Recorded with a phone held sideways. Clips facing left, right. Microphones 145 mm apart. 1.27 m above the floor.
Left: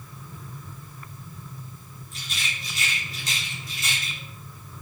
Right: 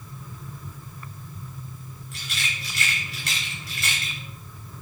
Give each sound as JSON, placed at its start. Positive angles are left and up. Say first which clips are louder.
{"t": 2.1, "sound": "a rattle", "louder": "right 1 dB", "side_deg": -70, "distance_m": 3.5}